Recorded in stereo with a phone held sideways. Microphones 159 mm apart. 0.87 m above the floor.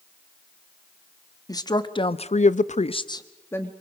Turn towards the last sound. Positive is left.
turn(degrees=15)  # may be behind; listen again after turning